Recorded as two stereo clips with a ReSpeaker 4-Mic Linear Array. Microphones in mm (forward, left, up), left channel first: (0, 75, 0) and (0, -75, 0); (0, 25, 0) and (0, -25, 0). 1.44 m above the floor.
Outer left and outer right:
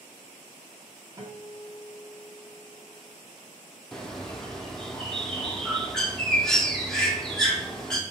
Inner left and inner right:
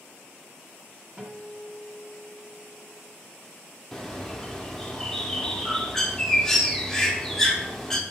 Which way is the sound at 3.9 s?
5° left (ahead or behind).